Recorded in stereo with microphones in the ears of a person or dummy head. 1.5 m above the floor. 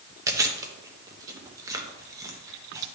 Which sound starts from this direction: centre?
Chewing, at 0.3 s.